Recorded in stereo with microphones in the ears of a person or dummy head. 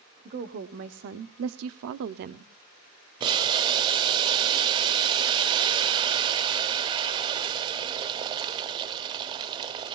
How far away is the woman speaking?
About 1.1 m.